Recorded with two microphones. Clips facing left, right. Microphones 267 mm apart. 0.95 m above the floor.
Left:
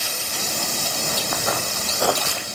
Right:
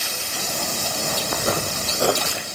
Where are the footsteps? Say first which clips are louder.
Right 3 dB; 35° right (ahead or behind), 3 m; by 2.4 s 15° right (ahead or behind), 1.7 m.